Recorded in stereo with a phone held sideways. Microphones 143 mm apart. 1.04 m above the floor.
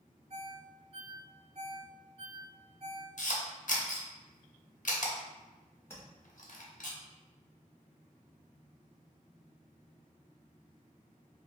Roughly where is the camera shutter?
Left.